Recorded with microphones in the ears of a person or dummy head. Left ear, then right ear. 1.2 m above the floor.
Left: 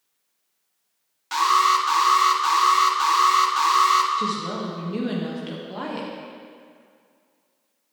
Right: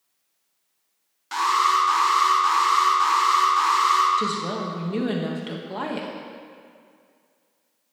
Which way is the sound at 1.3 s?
10° left (ahead or behind).